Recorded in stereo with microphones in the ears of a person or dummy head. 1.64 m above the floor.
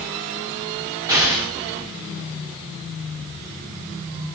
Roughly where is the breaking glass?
No breaking glass in this recording.